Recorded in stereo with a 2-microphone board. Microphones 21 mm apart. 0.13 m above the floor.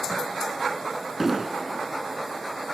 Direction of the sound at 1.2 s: 15° right (ahead or behind).